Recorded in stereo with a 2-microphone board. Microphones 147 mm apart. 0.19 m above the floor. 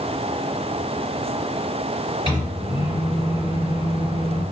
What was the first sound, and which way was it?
A microwave, 35° left (ahead or behind).